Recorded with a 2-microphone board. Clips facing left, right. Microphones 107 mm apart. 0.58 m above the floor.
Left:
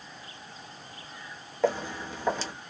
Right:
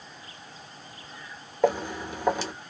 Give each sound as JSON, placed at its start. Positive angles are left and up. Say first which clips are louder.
{"t": 1.6, "sound": "footsteps", "louder": "right 3 dB", "side_deg": -15, "distance_m": 1.0}